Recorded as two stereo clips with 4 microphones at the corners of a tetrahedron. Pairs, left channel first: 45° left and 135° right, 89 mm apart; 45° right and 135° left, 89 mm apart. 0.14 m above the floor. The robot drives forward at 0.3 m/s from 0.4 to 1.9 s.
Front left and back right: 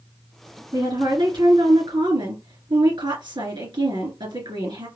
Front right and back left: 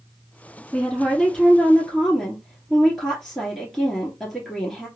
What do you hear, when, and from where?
0.7 s a woman speaking: 125° right, 2.5 m; by 4.9 s 135° right, 2.5 m